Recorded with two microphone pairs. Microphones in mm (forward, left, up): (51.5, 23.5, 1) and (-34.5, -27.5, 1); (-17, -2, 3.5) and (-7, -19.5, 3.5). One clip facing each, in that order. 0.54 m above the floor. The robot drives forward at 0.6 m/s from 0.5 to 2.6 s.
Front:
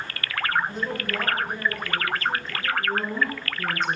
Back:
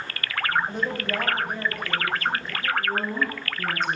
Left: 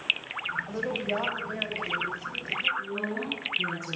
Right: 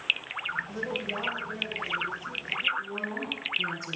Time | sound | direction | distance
0.7 | a woman speaking | 170° left | 3 m
2.8 | a woman speaking | 105° right | 4 m